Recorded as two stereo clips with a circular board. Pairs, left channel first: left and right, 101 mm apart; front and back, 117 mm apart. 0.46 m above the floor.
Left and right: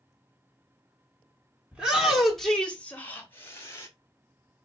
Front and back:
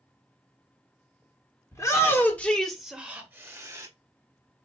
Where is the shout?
20° right, 1.0 m; by 3.9 s 135° left, 1.2 m.